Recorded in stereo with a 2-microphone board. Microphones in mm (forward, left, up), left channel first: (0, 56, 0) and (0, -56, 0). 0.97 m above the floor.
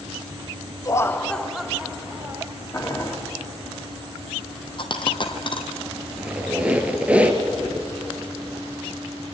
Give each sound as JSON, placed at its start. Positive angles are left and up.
{"t": 0.8, "sound": "laughter", "side_deg": 30, "distance_m": 0.9}
{"t": 2.7, "sound": "boiling", "side_deg": 25, "distance_m": 2.0}
{"t": 4.8, "sound": "a dropped coin", "side_deg": 45, "distance_m": 1.8}
{"t": 6.2, "sound": "a squeak", "side_deg": -10, "distance_m": 1.9}